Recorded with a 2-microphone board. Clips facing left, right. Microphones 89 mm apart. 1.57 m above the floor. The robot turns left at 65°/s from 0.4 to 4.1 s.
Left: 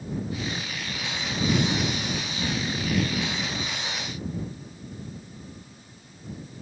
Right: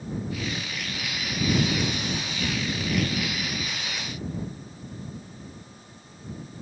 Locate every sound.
Only background noise.